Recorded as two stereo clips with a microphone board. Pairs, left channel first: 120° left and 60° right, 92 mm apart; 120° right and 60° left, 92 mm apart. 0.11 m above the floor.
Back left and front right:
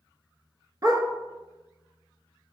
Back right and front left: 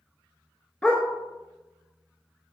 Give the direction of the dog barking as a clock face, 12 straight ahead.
2 o'clock.